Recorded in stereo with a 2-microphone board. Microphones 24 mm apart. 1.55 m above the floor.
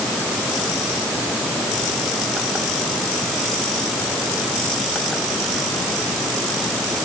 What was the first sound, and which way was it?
Only background noise.